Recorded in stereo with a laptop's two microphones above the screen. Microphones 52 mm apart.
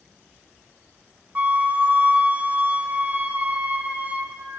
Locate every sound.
1.4 s a flute: 30° right (ahead or behind), 0.8 m